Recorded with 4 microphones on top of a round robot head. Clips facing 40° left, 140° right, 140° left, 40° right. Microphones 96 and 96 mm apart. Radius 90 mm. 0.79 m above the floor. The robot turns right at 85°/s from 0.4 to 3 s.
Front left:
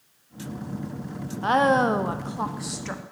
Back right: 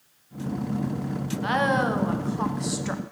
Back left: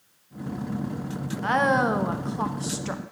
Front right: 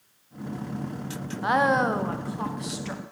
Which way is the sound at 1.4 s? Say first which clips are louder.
Front left 4 dB, even; 25° left.